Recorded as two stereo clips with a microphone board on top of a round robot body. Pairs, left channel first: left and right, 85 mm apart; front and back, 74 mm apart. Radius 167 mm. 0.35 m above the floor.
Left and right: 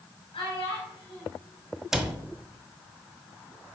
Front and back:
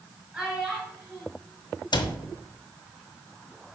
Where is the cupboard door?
5° right, 1.0 m.